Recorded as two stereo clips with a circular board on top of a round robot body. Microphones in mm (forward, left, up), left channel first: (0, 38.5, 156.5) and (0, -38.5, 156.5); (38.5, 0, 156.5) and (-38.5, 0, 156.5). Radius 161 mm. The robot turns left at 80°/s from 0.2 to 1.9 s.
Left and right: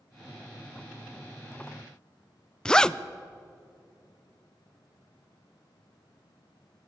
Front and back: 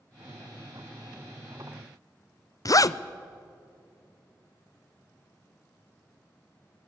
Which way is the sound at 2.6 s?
10° left.